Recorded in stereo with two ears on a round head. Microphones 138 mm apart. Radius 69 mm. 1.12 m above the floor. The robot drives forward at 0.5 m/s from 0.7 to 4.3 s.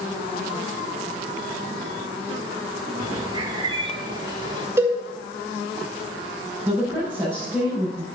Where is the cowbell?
20° right (ahead or behind), 2.5 m.